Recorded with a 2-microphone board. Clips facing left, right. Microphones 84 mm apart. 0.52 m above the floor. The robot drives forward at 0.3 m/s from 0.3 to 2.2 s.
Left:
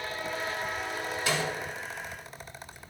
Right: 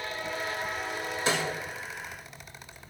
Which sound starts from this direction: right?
A snare drum, at 1.3 s.